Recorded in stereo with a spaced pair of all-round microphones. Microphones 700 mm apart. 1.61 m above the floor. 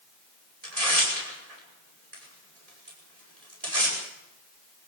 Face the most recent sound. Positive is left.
turn(degrees=-60)  # may be behind; listen again after turning